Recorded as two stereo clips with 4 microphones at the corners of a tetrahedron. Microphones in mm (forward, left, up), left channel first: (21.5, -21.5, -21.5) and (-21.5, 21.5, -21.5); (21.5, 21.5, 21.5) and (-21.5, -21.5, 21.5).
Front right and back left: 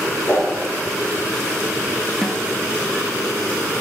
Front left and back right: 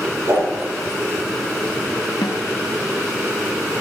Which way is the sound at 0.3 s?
105° right.